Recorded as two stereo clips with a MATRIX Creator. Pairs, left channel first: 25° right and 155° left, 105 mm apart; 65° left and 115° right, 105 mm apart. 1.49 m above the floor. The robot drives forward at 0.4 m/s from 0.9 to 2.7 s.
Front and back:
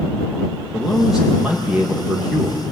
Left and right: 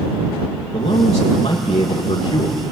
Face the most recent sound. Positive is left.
turn(degrees=85)